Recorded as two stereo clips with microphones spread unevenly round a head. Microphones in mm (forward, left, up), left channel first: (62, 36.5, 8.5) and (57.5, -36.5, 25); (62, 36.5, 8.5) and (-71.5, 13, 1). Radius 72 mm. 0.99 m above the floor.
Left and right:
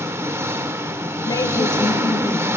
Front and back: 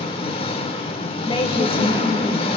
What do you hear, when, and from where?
0.0 s an engine running: 45° right, 1.5 m
1.2 s a woman speaking: 60° left, 3.5 m